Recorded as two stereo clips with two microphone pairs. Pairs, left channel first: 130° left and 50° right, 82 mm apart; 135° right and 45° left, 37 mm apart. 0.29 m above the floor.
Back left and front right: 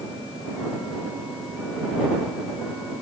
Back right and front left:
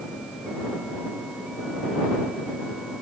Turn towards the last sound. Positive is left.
No sound to turn to.